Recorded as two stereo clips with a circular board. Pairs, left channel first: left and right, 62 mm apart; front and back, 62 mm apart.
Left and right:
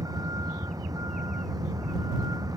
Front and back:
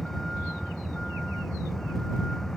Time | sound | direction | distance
0.0 | a vehicle | 85° right | ?